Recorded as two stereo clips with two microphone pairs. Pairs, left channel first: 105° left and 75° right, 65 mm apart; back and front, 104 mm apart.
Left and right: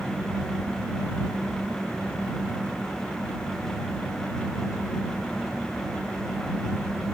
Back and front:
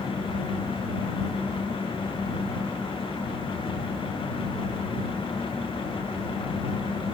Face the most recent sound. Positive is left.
No sound to turn to.